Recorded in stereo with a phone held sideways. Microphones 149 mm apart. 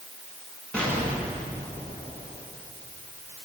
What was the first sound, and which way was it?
An explosion, 5° left (ahead or behind).